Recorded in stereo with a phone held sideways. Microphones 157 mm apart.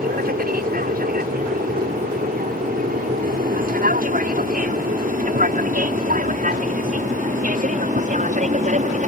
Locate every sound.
0.0 s an aircraft: 70° right (ahead or behind); by 9.1 s 55° right (ahead or behind)